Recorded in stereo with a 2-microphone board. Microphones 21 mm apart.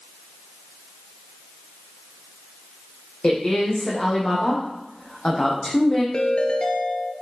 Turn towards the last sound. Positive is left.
turn(degrees=50)  # may be behind; listen again after turning